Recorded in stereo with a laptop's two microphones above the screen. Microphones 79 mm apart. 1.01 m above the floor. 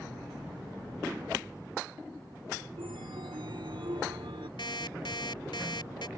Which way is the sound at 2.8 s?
75° right (ahead or behind).